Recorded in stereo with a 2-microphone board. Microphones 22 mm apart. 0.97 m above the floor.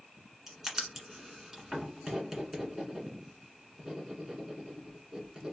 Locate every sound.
0.5 s writing: 15° right (ahead or behind), 1.7 m